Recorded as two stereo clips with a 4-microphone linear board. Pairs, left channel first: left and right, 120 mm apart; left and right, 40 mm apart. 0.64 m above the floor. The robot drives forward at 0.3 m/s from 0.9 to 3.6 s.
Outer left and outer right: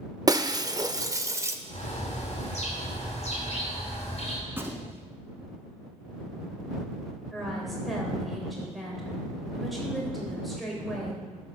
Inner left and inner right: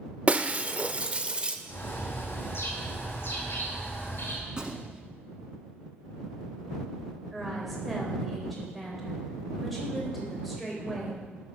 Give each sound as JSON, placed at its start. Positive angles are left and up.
{"t": 0.3, "sound": "breaking glass", "side_deg": -30, "distance_m": 0.5}
{"t": 1.7, "sound": "a bird", "side_deg": 70, "distance_m": 2.5}
{"t": 4.5, "sound": "a gunshot", "side_deg": -20, "distance_m": 1.1}
{"t": 7.3, "sound": "a woman speaking", "side_deg": 0, "distance_m": 3.0}